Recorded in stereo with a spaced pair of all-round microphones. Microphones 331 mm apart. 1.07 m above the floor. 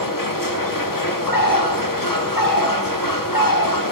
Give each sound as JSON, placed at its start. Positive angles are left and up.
{"t": 0.0, "sound": "a machine running", "side_deg": 70, "distance_m": 1.5}
{"t": 1.3, "sound": "a bird", "side_deg": 75, "distance_m": 1.4}